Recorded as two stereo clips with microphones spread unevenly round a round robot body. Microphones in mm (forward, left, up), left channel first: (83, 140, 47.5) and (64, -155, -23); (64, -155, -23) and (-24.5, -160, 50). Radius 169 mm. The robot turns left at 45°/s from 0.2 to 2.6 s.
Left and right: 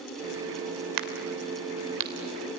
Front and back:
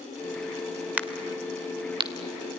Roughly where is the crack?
Right.